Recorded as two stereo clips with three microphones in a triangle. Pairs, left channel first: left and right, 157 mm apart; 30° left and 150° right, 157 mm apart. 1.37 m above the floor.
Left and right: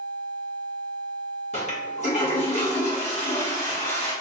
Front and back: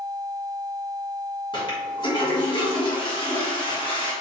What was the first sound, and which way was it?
A toilet flushing, 75° left.